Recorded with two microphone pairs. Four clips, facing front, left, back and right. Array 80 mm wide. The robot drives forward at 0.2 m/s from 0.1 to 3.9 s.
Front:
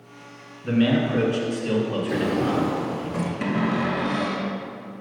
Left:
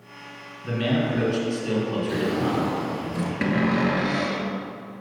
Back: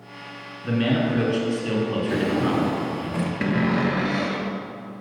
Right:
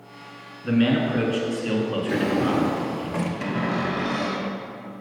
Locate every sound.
0.6 s a man speaking: 105° right, 1.4 m; by 3.1 s 140° right, 1.6 m
2.1 s a drawer: 115° right, 0.9 m; by 3.3 s 130° right, 1.1 m
3.4 s a cupboard door: 125° left, 0.9 m; by 4.5 s 130° left, 1.0 m